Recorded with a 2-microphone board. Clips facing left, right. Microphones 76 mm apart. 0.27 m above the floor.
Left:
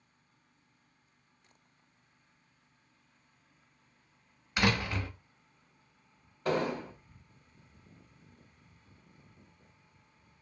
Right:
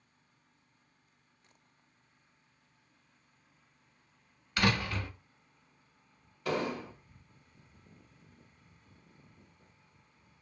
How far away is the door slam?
About 0.9 m.